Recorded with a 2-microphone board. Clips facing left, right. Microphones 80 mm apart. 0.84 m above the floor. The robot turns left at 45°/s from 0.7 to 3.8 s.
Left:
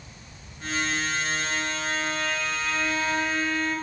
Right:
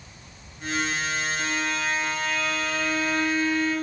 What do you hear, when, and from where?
1.4 s a violin: 65° right, 6.5 m; by 3.7 s 170° right, 6.5 m